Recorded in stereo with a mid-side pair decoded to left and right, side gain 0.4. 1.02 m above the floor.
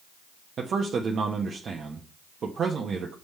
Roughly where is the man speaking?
Ahead right.